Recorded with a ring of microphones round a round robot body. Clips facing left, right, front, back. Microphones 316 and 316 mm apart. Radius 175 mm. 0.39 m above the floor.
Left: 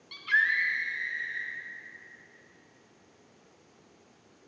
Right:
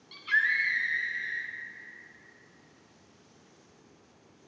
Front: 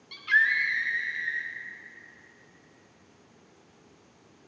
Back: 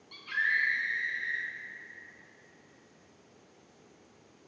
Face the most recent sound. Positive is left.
turn(degrees=-75)